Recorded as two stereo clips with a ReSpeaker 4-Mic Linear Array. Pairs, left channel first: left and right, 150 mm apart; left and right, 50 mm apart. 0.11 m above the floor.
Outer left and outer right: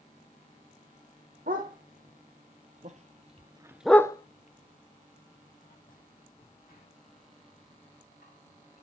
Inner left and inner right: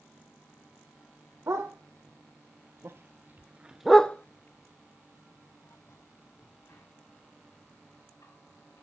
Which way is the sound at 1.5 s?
70° right (ahead or behind).